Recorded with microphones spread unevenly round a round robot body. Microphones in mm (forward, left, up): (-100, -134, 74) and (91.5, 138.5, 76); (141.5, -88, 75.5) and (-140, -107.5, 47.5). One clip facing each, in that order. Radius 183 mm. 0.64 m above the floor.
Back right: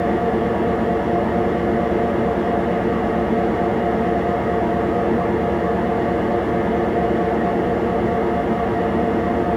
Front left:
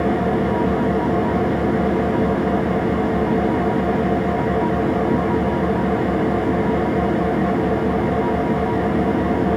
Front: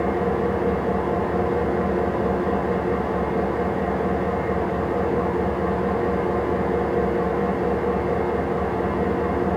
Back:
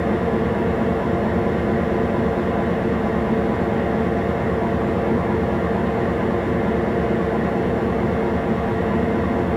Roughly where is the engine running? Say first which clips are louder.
Even, back 2 dB; behind left.